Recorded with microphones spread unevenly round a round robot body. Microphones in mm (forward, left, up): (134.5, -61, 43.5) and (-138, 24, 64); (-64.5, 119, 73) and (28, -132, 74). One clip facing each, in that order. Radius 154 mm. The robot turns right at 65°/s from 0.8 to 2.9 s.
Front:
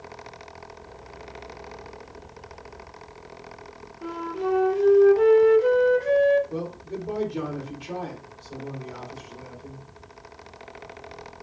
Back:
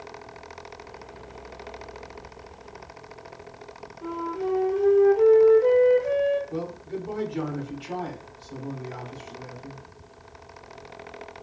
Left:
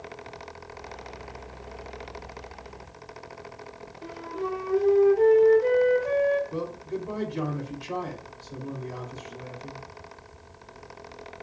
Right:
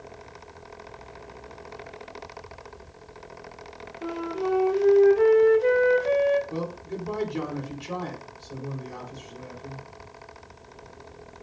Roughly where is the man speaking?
Right.